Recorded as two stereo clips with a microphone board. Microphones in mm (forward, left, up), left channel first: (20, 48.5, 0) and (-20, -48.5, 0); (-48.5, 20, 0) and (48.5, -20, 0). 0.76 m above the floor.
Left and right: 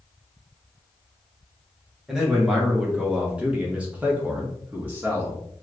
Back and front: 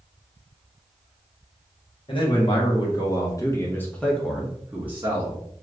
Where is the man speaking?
165° left, 1.4 m; by 5.4 s 50° right, 1.0 m.